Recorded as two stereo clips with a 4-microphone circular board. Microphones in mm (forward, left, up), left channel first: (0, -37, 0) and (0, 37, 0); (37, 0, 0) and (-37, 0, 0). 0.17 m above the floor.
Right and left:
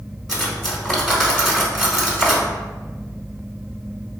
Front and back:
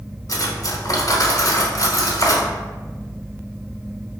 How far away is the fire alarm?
I don't hear a fire alarm.